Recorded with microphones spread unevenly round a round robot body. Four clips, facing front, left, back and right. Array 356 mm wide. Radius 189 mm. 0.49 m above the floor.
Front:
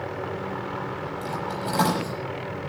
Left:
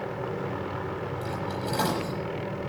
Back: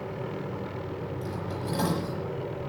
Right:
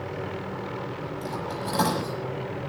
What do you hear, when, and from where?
1.2 s cutlery clinking: 30° right, 7.5 m